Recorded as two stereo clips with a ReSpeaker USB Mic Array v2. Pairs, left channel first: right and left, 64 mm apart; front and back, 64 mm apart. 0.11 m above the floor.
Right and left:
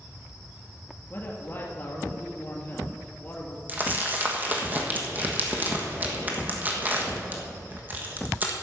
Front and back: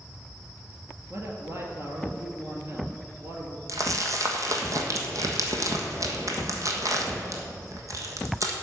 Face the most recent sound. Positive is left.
turn(degrees=150)